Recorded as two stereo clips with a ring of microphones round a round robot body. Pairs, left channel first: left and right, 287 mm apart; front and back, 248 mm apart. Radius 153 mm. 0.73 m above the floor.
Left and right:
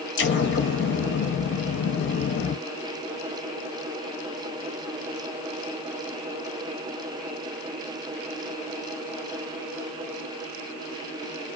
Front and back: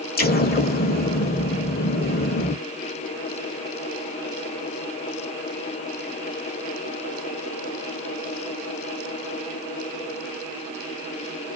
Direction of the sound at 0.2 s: 45° left.